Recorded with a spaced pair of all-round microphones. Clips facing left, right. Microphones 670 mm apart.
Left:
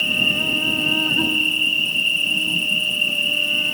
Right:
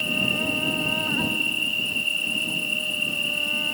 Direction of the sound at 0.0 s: 55° left (ahead or behind).